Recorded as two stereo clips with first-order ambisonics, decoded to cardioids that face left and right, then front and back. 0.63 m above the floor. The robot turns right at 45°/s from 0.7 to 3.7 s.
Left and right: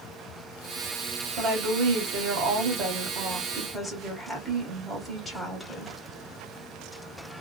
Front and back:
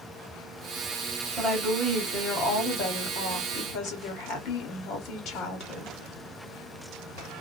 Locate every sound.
1.4 s a woman speaking: 95° right, 1.1 m; by 5.9 s 10° left, 1.1 m